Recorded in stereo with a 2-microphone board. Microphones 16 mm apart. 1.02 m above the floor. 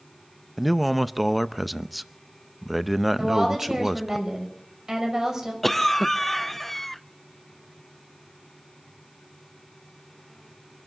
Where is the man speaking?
5° right (ahead or behind), 0.6 m.